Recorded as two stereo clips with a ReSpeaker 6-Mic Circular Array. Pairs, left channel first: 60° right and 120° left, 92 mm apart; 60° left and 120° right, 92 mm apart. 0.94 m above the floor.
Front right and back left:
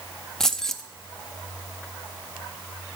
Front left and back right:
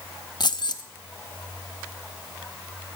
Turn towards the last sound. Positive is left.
turn(degrees=25)